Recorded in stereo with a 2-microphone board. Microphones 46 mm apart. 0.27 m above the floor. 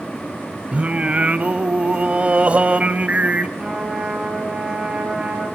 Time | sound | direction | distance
0.7 | singing | 30° right (ahead or behind) | 0.6 m
3.6 | a trumpet | 20° right (ahead or behind) | 3.5 m